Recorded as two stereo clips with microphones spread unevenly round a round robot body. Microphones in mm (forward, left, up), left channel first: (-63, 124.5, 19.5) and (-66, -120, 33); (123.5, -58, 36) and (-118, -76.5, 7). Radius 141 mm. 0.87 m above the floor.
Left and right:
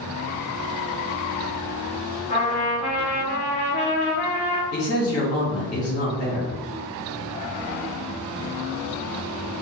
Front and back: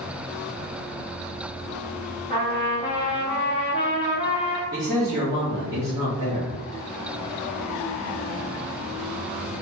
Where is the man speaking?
90° left, 1.3 m.